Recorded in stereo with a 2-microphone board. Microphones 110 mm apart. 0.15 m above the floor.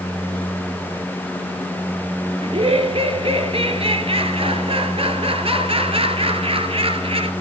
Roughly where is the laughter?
Right.